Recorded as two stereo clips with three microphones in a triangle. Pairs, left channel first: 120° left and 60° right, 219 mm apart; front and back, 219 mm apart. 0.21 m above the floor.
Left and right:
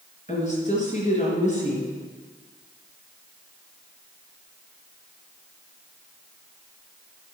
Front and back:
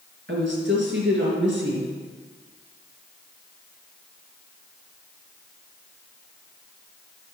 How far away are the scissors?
No scissors in this recording.